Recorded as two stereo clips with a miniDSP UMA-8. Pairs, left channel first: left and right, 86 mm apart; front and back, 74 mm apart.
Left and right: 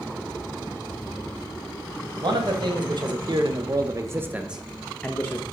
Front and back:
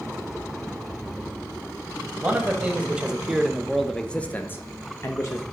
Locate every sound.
2.2 s a man speaking: 110° right, 1.4 m; by 5.4 s 30° left, 0.8 m